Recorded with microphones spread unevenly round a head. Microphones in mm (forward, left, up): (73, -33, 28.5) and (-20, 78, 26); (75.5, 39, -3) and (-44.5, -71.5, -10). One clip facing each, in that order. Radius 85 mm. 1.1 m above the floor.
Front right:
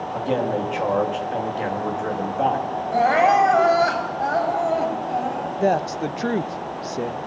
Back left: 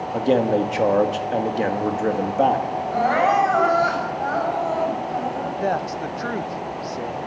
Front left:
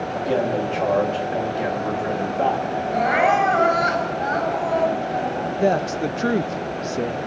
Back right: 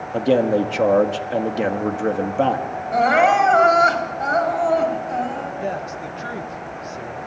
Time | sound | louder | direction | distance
0.1 | a man speaking | back left 5 dB, back right 6 dB | 175° right | 1.9 m
2.9 | crying | front right 2 dB, back right 4 dB | 110° right | 4.5 m
5.6 | a woman speaking | front right 5 dB, front left 7 dB | 15° left | 0.6 m